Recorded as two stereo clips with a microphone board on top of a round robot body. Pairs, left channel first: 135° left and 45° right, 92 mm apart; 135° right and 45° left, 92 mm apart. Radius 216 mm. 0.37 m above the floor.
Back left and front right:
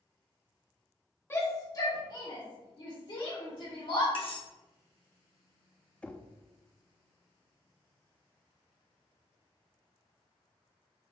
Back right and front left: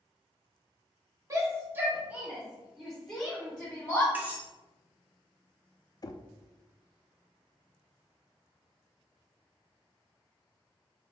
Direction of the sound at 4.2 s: 120° left.